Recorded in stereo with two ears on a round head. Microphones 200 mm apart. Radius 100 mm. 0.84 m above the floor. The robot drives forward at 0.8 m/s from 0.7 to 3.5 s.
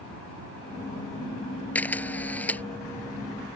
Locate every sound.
1.8 s a camera shutter: 5° left (ahead or behind)